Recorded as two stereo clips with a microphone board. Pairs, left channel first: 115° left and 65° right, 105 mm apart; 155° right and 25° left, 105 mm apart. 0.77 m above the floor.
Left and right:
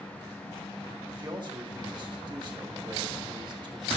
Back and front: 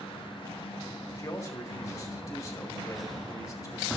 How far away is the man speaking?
About 1.5 m.